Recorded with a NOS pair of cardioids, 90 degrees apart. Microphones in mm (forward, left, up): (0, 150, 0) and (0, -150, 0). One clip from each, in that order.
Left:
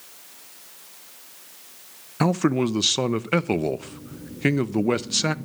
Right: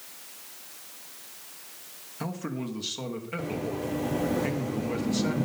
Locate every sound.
2.2 s a man speaking: 60° left, 0.5 m